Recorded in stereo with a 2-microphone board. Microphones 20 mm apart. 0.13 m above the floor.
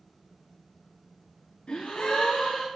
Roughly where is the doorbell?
No doorbell in this recording.